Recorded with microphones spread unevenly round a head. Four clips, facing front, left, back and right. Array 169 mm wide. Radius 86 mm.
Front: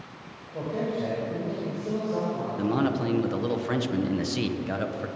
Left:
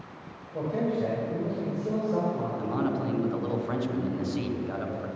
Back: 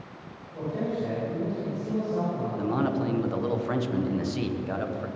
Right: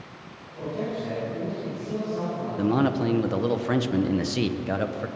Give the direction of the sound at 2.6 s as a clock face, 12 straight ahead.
2 o'clock.